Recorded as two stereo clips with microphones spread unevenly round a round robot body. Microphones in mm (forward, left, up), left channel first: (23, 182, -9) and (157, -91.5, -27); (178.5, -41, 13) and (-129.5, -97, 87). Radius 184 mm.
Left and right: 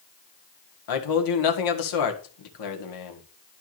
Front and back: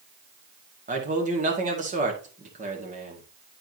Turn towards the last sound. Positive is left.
turn(degrees=115)